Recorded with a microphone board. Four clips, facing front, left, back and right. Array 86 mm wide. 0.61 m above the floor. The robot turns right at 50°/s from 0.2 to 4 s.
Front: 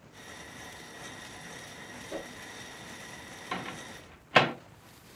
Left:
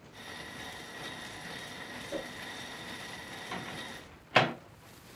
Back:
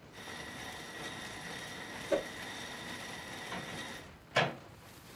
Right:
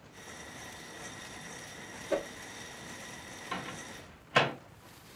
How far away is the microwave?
About 0.8 m.